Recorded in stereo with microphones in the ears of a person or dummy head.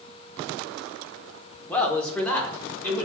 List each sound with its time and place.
1.7 s a man speaking: 20° left (ahead or behind), 0.8 m